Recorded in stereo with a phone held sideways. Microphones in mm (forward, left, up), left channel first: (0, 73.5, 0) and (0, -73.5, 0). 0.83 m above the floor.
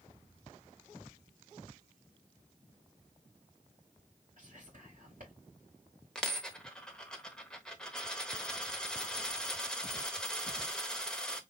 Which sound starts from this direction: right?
Whispering, at 4.4 s.